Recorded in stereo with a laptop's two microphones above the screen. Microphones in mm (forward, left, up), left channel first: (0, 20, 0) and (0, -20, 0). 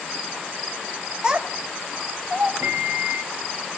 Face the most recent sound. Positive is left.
turn(degrees=-85)